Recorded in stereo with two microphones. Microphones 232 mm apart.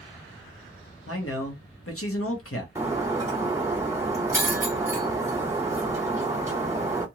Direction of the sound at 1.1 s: 70° left (ahead or behind).